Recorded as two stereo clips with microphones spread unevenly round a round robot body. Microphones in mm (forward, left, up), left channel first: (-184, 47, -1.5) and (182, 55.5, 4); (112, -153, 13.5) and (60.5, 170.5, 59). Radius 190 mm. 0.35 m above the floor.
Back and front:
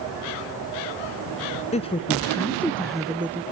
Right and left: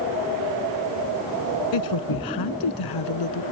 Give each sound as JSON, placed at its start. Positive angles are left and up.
{"t": 1.7, "sound": "a woman speaking", "azimuth_deg": -105}